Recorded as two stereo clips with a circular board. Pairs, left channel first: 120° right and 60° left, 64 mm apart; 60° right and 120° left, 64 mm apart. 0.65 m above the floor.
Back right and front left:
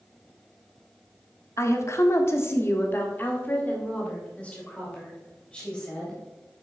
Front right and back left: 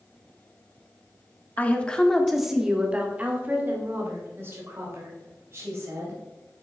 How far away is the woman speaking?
About 1.1 m.